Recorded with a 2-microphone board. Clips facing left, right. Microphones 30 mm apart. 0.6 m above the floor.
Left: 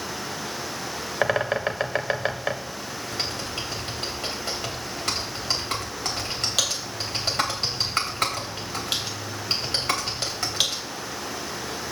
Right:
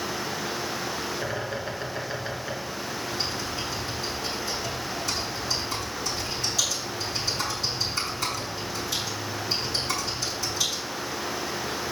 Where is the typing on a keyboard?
70° left (ahead or behind), 3 m.